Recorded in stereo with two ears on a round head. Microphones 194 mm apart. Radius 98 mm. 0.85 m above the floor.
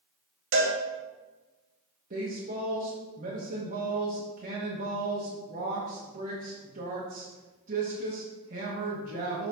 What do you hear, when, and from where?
0.5 s a cowbell: 60° right (ahead or behind), 1.1 m
2.1 s a woman speaking: 35° right (ahead or behind), 1.1 m